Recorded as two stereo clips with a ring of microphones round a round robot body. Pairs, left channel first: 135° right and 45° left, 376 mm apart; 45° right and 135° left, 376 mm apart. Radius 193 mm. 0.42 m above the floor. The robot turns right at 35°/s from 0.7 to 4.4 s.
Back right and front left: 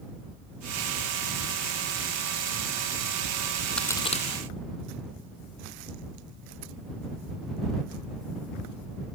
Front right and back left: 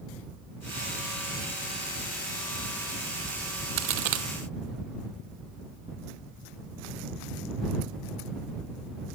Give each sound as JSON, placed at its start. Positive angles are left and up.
{"t": 3.8, "sound": "a crack", "azimuth_deg": 135}